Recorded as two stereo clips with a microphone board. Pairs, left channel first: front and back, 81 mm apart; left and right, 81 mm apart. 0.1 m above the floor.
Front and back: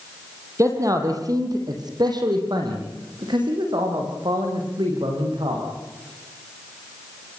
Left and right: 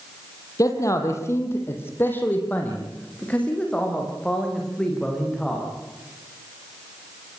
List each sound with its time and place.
0.6 s a man speaking: 135° left, 4 m; by 5.6 s 175° left, 9 m